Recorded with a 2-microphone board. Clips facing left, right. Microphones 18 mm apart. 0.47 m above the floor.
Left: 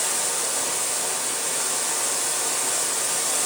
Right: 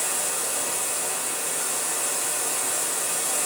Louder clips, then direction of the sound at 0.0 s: Left 2 dB; 50° left (ahead or behind).